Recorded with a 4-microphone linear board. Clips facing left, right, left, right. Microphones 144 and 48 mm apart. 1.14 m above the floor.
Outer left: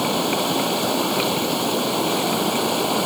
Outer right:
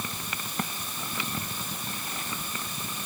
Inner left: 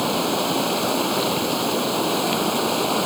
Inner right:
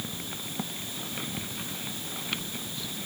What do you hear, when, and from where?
0.0 s running water: 75° left (ahead or behind)